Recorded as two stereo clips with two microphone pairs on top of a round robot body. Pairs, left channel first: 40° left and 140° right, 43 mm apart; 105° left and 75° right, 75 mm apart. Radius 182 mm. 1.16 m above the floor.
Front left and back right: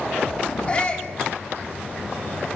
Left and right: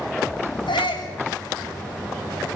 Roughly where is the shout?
Left.